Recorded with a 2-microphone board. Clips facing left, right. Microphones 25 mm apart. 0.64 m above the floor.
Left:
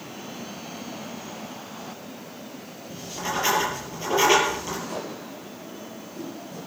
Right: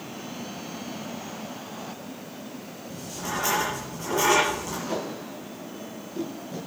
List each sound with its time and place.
2.9 s writing: 35° left (ahead or behind), 5.5 m
4.8 s tape being pulled: 50° right (ahead or behind), 7.5 m